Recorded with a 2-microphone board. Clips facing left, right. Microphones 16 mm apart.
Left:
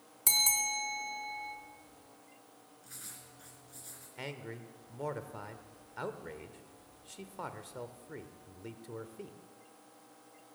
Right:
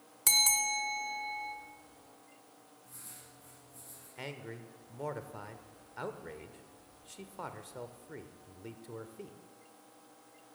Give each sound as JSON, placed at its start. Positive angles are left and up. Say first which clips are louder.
{"t": 0.3, "sound": "a bell", "louder": "right 2 dB", "side_deg": -10, "distance_m": 1.2}
{"t": 2.8, "sound": "writing", "louder": "left 4 dB", "side_deg": 75, "distance_m": 4.0}
{"t": 4.2, "sound": "a man speaking", "louder": "even", "side_deg": 5, "distance_m": 0.8}